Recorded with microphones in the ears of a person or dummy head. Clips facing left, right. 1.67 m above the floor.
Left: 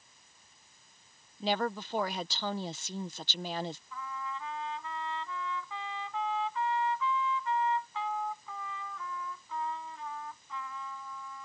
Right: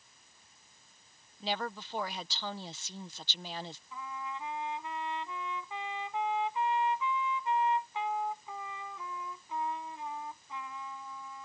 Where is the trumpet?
20° right (ahead or behind).